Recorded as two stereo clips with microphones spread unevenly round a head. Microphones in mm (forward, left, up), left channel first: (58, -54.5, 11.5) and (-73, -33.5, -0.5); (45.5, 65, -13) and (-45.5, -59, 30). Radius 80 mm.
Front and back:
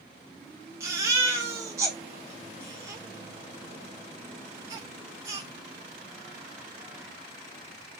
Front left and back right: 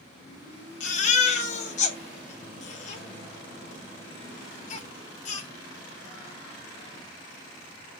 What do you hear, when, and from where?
0.8 s a baby crying: 100° left, 0.9 m